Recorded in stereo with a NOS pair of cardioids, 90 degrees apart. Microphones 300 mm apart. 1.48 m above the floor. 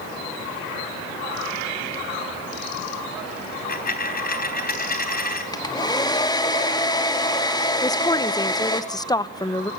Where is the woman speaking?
15° left, 1.0 m.